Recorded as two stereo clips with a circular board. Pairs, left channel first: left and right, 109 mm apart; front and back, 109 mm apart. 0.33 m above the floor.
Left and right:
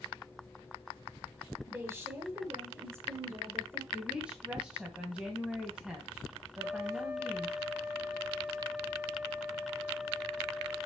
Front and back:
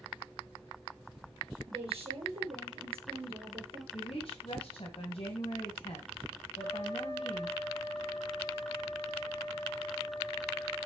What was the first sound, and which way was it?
A woman speaking, 155° right.